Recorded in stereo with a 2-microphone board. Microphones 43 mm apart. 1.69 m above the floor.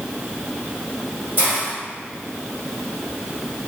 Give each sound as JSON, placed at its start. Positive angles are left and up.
{"t": 1.4, "sound": "a hiss", "side_deg": -45, "distance_m": 1.3}